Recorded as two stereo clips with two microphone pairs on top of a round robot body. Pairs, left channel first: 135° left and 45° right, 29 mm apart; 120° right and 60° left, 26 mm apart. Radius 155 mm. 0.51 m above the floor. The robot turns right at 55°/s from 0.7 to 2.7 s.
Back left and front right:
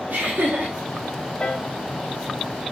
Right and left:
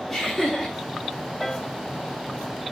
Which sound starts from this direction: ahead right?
Laughter, at 0.1 s.